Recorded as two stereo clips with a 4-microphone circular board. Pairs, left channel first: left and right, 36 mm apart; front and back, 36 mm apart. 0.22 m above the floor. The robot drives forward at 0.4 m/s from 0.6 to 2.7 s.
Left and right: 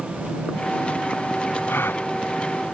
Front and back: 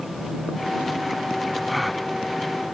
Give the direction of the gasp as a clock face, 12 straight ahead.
9 o'clock.